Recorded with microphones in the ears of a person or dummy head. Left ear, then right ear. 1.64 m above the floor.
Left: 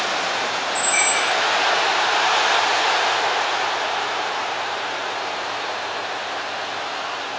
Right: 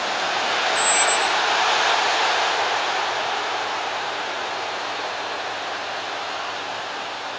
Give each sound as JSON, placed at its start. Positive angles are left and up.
{"t": 0.8, "sound": "a squeak", "side_deg": 35, "distance_m": 1.2}